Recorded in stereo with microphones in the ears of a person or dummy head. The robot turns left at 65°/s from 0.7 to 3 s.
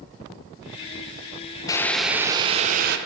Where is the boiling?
15° left, 0.5 m; by 3.0 s 65° right, 0.5 m.